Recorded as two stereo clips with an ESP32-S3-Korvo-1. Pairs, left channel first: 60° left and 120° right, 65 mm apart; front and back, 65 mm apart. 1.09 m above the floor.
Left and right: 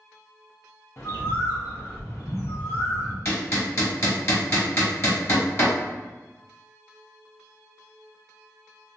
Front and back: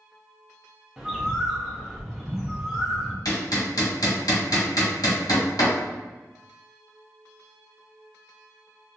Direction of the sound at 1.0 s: 100° left.